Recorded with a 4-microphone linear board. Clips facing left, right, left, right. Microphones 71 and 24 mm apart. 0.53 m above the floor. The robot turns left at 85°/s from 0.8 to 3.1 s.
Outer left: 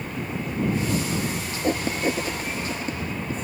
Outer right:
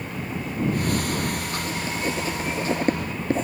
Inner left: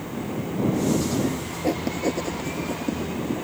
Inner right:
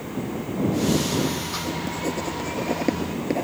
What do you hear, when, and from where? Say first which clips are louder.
1.6 s writing: outer left 7 dB, inner left 3 dB; 55° left (ahead or behind); by 3.5 s 70° right (ahead or behind)